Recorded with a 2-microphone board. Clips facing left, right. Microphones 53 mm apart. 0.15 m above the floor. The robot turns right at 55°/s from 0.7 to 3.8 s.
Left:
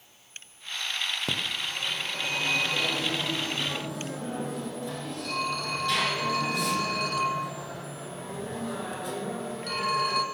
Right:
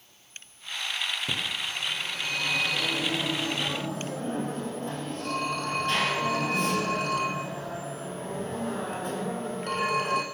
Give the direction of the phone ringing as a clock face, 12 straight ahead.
9 o'clock.